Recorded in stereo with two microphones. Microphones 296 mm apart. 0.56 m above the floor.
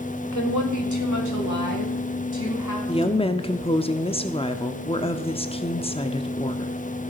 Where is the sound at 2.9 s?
20° left (ahead or behind), 0.8 m.